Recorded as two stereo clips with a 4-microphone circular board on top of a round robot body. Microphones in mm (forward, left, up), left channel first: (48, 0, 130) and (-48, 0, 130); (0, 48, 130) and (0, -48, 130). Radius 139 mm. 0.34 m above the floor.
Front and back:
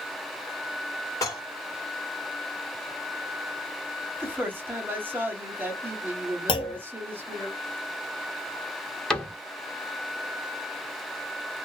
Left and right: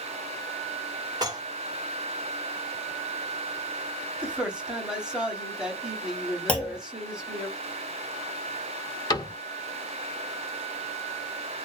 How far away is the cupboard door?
About 1.5 m.